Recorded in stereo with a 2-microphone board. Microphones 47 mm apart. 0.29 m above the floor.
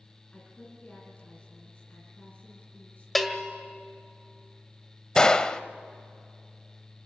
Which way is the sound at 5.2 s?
20° left (ahead or behind).